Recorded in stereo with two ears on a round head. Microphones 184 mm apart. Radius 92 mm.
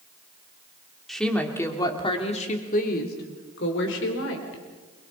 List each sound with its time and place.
1.1 s a woman speaking: centre (ahead or behind), 2.5 m; by 4.6 s 70° left (ahead or behind), 4 m